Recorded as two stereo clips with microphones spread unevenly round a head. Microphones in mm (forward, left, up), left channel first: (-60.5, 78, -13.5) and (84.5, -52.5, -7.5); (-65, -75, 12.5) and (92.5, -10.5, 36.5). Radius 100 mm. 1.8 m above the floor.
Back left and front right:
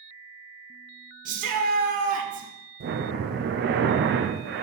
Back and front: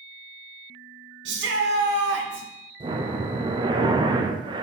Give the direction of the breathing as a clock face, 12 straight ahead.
1 o'clock.